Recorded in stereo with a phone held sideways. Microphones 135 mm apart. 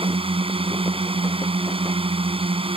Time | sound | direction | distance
0.0 | a drone | 40° right (ahead or behind) | ?